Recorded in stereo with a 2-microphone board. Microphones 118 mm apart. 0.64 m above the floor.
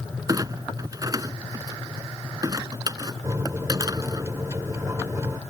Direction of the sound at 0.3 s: 30° right (ahead or behind).